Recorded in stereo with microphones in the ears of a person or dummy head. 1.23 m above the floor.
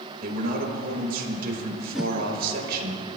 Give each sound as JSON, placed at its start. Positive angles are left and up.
{"t": 0.2, "sound": "a man speaking", "side_deg": -55, "distance_m": 4.0}
{"t": 1.9, "sound": "a whoosh", "side_deg": 0, "distance_m": 0.8}